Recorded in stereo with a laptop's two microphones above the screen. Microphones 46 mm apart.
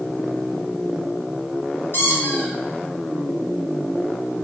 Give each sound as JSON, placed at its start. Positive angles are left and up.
{"t": 1.9, "sound": "a squeak", "side_deg": 55, "distance_m": 0.6}